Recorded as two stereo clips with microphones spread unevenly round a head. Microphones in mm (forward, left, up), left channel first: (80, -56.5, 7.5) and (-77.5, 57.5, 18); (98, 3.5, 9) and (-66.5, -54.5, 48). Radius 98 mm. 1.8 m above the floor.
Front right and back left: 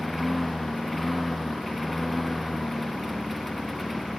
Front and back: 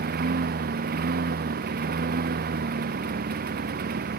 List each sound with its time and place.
0.0 s a lawn mower: 125° right